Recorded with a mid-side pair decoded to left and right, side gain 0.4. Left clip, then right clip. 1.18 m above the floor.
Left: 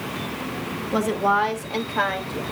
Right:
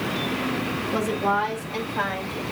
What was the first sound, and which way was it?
A woman speaking, 30° left.